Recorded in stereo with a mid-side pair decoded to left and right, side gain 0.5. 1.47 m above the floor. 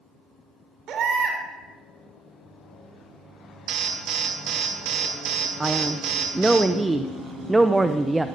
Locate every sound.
0.9 s a baby crying: 60° right, 3 m
3.7 s an alarm: 65° right, 2.5 m
5.6 s a man speaking: 15° right, 0.7 m